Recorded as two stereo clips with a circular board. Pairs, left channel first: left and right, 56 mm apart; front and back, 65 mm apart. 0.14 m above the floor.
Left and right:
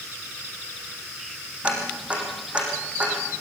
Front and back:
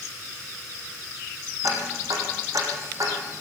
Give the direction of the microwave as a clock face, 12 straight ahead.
No microwave in this recording.